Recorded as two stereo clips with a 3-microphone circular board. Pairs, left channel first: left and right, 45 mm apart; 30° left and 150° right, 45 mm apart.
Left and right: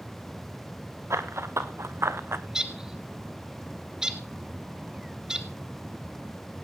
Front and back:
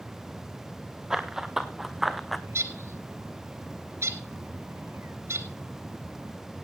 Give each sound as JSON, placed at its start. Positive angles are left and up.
{"t": 1.1, "sound": "running footsteps", "azimuth_deg": -70, "distance_m": 2.0}
{"t": 2.5, "sound": "a bird", "azimuth_deg": -165, "distance_m": 1.6}